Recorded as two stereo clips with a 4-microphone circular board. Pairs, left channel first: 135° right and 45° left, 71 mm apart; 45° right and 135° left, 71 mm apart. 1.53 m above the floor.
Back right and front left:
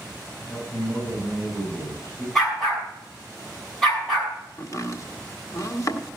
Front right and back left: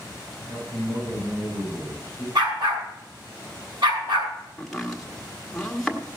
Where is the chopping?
130° right, 1.4 m.